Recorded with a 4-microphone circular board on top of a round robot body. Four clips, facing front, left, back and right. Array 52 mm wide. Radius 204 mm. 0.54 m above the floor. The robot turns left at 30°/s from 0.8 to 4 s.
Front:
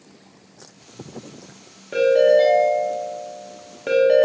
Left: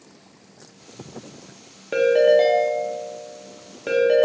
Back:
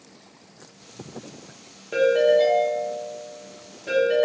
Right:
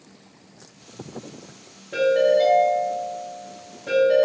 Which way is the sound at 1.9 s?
90° left.